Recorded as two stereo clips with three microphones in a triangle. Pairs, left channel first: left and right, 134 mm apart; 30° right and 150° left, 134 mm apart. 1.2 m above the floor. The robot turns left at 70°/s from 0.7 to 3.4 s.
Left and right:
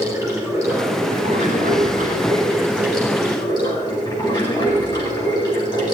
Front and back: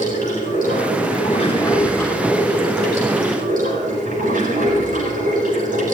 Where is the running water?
25° right, 9 m; by 6.0 s 150° left, 9 m.